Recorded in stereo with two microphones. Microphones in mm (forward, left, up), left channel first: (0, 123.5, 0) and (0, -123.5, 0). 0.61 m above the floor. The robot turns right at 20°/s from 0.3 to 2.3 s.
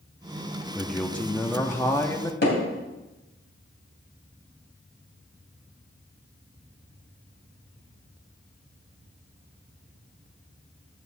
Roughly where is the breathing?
I don't hear breathing.